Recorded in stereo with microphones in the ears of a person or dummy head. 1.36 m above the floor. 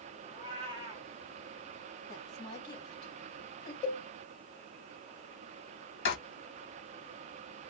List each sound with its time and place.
0.3 s a cat meowing: 35° right (ahead or behind), 1.1 m
2.1 s a woman speaking: 25° left (ahead or behind), 2 m
3.8 s a cowbell: 20° left (ahead or behind), 2.0 m
6.0 s writing: 70° left (ahead or behind), 1.9 m